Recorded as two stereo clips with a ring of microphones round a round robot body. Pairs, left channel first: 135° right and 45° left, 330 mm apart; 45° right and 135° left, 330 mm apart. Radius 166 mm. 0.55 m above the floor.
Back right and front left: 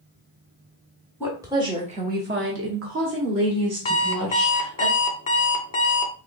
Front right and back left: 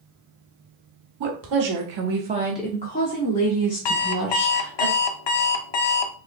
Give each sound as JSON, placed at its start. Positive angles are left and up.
{"t": 1.2, "sound": "a woman speaking", "azimuth_deg": 130, "distance_m": 1.4}
{"t": 3.9, "sound": "an alarm clock", "azimuth_deg": -60, "distance_m": 0.7}